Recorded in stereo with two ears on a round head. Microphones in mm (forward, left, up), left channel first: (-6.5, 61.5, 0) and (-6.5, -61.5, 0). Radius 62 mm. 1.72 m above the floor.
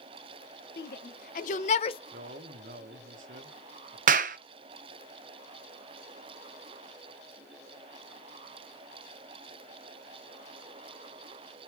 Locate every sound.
0.8 s a shout: 75° left (ahead or behind), 1.0 m; by 2.0 s 35° left (ahead or behind), 0.6 m
2.1 s a man speaking: 70° right (ahead or behind), 1.2 m
4.1 s a clap: 60° right (ahead or behind), 0.6 m